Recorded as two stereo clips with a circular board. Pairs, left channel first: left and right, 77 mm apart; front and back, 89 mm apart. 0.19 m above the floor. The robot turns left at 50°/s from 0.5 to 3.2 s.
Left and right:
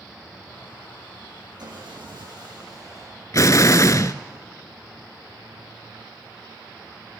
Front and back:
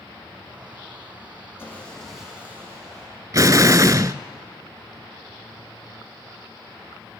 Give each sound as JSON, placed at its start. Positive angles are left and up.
{"t": 1.6, "sound": "sawing", "azimuth_deg": -60, "distance_m": 8.0}
{"t": 3.3, "sound": "an explosion", "azimuth_deg": 130, "distance_m": 0.6}